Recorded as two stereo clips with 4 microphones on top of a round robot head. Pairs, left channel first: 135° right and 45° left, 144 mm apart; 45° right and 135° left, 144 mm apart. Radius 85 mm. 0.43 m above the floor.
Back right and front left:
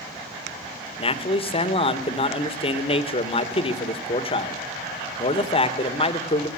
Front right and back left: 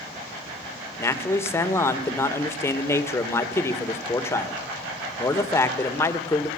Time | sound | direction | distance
1.0 | a man speaking | 110° right | 1.9 m